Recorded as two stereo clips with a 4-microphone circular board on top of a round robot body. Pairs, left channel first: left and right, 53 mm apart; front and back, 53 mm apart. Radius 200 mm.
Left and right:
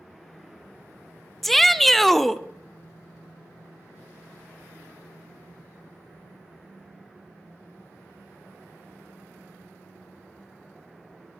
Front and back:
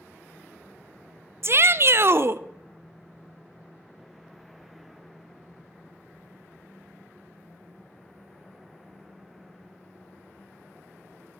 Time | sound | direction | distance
1.4 | a shout | 175° left | 0.5 m